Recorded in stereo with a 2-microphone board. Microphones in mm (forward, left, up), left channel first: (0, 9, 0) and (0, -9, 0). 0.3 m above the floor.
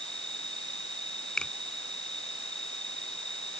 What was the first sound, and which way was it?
An insect, 40° left (ahead or behind).